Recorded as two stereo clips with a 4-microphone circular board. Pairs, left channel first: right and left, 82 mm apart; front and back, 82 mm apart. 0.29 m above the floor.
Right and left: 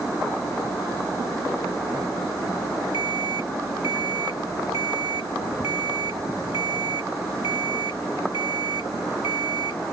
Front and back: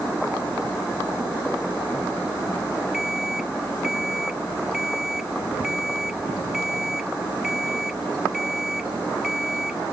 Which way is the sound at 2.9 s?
95° right.